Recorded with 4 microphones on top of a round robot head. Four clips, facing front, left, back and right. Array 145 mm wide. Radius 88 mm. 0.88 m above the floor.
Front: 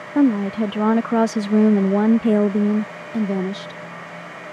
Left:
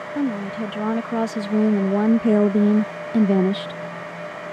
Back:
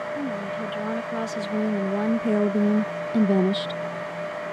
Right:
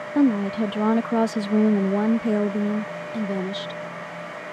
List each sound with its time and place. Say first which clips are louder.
0.1 s a woman speaking: right 5 dB, front 11 dB; 20° right; by 3.8 s 115° left